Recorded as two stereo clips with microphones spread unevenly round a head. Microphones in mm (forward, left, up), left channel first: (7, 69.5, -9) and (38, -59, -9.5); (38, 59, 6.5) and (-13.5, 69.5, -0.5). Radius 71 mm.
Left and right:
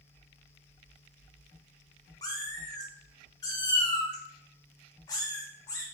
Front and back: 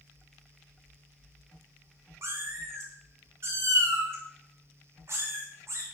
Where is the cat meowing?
160° left, 0.9 m.